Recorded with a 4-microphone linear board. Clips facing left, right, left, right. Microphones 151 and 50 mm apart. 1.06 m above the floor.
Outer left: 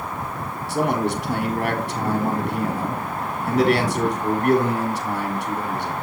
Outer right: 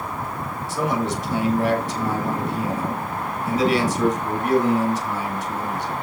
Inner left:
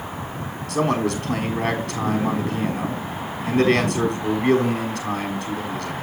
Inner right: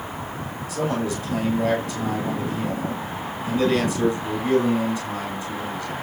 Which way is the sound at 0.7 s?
70° left (ahead or behind).